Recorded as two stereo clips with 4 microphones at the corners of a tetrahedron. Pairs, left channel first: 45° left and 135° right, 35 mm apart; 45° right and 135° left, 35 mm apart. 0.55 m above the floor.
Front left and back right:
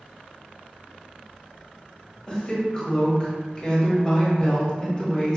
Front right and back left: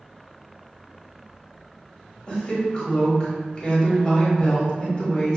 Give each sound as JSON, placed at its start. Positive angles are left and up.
{"t": 2.3, "sound": "a woman speaking", "azimuth_deg": -5, "distance_m": 1.1}